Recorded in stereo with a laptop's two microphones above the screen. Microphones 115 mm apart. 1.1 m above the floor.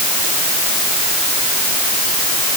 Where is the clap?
I don't hear a clap.